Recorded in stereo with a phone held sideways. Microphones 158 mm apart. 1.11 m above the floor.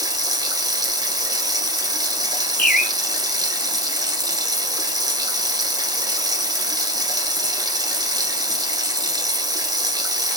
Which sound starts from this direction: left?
A bird, at 2.6 s.